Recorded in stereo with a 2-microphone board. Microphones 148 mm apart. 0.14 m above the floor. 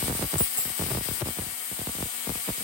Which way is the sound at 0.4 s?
35° left (ahead or behind).